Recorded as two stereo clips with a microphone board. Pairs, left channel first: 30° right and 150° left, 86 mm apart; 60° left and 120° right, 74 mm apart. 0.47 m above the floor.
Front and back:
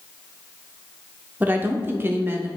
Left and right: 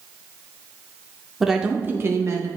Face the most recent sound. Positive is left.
turn(degrees=-150)